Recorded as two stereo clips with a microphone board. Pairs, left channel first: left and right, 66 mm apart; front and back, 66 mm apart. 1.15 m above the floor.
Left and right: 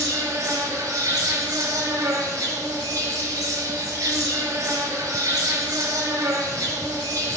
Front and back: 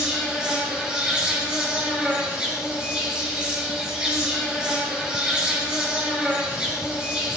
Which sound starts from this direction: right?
An insect, at 0.0 s.